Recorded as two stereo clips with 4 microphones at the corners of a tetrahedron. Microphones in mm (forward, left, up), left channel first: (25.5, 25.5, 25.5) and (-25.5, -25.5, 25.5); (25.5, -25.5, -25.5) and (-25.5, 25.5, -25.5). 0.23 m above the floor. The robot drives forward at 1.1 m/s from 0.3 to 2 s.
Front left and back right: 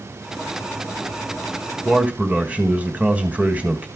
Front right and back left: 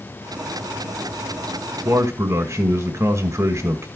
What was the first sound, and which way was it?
A man speaking, 160° left.